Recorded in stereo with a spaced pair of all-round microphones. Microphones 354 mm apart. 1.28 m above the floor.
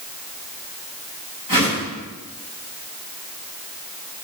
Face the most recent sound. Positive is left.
turn(degrees=65)  # may be behind; listen again after turning